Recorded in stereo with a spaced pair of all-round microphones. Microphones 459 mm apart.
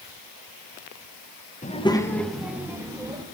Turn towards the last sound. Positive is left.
turn(degrees=-10)  # may be behind; listen again after turning